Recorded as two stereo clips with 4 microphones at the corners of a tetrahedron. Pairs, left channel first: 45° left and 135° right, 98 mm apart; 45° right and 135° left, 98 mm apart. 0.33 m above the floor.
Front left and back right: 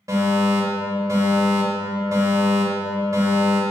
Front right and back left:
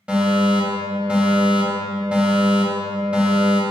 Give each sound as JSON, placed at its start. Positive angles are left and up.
{"t": 0.1, "sound": "a fire alarm", "azimuth_deg": -155, "distance_m": 2.5}